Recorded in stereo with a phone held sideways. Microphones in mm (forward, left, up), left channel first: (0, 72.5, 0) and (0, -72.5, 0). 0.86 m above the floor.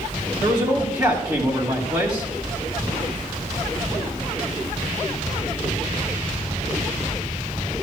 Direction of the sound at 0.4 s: 25° right (ahead or behind).